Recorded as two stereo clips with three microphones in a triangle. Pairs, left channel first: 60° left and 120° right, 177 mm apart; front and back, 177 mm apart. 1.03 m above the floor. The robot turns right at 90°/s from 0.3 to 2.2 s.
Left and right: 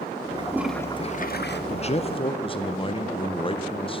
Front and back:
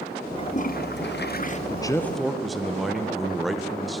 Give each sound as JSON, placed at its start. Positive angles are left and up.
{"t": 0.4, "sound": "a toilet flushing", "azimuth_deg": -60, "distance_m": 0.6}
{"t": 1.7, "sound": "a man speaking", "azimuth_deg": 45, "distance_m": 0.6}